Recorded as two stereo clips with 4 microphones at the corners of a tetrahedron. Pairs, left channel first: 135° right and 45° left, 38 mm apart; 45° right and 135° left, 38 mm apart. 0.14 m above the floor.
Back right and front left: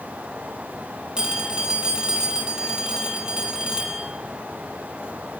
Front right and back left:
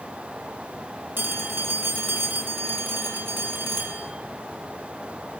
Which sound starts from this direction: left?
A phone ringing, at 1.2 s.